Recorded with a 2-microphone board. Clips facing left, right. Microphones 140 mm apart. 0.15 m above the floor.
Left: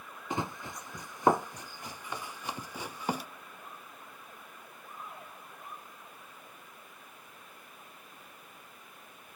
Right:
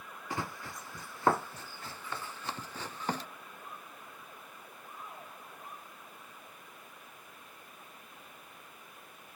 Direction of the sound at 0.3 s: 20° left (ahead or behind).